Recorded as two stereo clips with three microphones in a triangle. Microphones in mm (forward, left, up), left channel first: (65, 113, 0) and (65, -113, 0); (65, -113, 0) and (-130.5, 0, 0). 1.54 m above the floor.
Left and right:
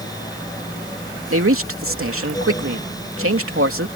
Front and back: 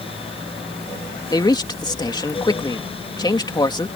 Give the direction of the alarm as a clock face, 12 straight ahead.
No alarm in this recording.